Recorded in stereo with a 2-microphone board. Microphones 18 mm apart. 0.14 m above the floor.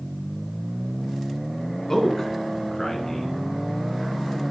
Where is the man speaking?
25° left (ahead or behind), 1.1 m.